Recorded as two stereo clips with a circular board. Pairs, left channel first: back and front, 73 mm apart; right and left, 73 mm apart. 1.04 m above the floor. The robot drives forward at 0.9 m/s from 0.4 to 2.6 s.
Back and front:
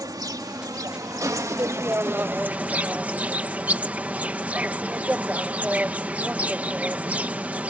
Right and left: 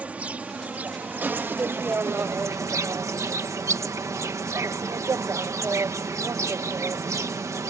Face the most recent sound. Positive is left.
turn(degrees=65)